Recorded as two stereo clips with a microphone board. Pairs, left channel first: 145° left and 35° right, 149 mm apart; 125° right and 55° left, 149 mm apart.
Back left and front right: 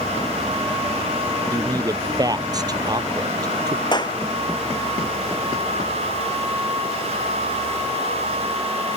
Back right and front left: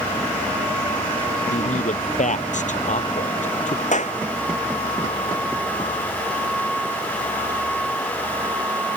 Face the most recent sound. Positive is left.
turn(degrees=-155)